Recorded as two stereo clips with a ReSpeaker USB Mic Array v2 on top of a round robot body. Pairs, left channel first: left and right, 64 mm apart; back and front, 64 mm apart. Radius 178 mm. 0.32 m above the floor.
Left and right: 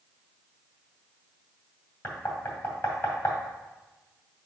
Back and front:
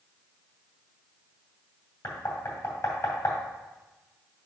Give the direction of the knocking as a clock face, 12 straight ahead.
7 o'clock.